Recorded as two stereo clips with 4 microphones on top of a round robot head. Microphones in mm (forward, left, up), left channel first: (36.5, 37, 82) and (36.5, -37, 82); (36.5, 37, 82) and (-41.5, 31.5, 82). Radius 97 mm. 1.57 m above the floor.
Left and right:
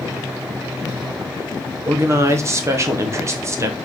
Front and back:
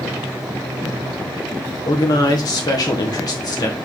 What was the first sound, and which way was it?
A man speaking, 40° right.